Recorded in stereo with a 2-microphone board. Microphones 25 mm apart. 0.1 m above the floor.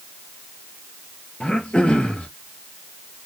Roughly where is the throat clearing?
Left.